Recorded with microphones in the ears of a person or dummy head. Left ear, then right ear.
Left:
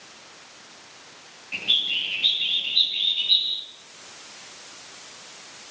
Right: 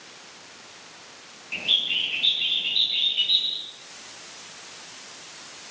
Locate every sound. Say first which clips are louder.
1.5 s a bird: even; 15° right (ahead or behind), 9.5 m